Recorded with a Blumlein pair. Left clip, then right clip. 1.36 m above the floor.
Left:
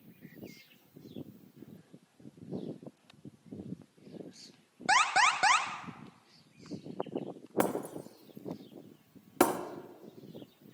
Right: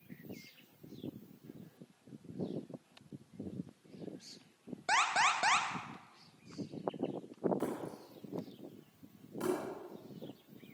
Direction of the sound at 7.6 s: 40° left.